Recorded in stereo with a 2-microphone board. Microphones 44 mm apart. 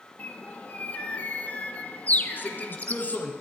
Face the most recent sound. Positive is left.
turn(degrees=45)  # may be behind; listen again after turning